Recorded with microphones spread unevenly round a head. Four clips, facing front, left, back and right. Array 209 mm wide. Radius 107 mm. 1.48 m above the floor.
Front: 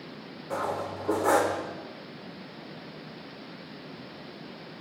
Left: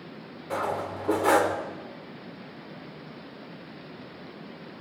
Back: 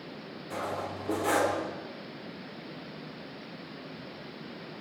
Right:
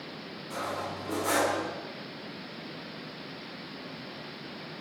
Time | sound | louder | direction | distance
0.5 | cutlery clinking | left 5 dB, front 4 dB | 45° left | 3 m